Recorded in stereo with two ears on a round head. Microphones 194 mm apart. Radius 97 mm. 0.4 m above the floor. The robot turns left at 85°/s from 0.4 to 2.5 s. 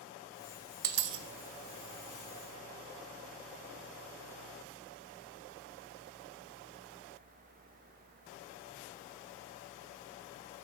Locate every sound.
0.8 s a dropped coin: 40° right (ahead or behind), 0.7 m; by 1.2 s 70° right (ahead or behind), 0.7 m